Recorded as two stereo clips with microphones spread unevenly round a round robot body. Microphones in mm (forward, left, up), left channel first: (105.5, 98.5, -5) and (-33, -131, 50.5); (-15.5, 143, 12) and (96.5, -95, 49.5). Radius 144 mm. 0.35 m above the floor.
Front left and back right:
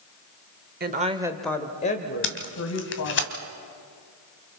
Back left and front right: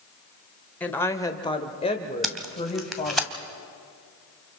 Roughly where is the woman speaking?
Behind.